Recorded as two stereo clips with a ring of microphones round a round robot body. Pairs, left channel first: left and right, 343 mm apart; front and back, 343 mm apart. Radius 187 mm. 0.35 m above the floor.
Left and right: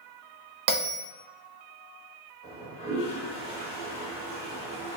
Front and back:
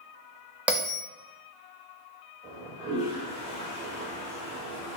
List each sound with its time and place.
0.7 s a bell: 95° right, 0.6 m
2.4 s a toilet flushing: 65° left, 1.7 m